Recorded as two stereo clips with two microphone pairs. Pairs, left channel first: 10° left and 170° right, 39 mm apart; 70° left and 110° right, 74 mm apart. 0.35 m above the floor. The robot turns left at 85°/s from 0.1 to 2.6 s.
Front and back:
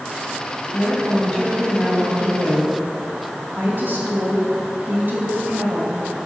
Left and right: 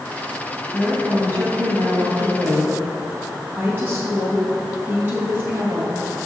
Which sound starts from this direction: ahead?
A woman speaking, at 0.7 s.